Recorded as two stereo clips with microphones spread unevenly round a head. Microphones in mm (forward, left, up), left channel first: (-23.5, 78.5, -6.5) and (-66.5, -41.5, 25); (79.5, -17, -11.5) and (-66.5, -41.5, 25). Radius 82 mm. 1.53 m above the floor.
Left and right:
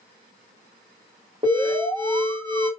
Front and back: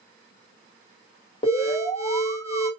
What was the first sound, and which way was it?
An alarm, 45° right.